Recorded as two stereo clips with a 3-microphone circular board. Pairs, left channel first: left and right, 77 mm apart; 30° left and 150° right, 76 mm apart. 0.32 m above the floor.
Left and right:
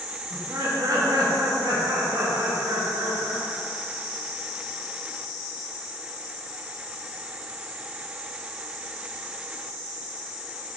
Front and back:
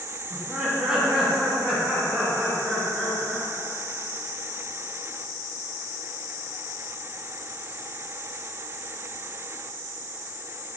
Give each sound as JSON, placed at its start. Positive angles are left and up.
{"t": 0.3, "sound": "laughter", "azimuth_deg": -70, "distance_m": 2.5}